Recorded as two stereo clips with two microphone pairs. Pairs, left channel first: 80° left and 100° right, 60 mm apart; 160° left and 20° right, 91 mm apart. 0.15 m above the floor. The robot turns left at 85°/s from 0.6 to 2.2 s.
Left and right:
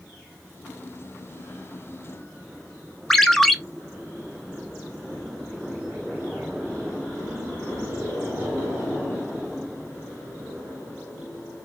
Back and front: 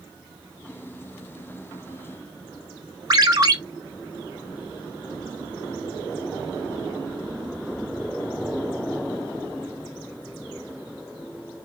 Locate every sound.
3.1 s a ringtone: straight ahead, 0.6 m